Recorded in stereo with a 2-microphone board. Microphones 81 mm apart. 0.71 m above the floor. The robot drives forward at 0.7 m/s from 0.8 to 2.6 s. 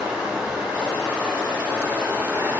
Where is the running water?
15° right (ahead or behind), 2.5 m; by 2.6 s 25° right (ahead or behind), 1.3 m.